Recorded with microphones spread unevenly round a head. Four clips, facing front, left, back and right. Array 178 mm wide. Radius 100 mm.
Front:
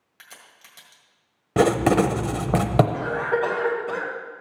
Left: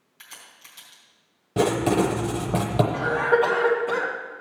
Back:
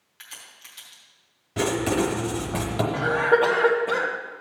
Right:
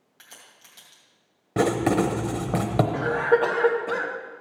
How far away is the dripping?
I don't hear dripping.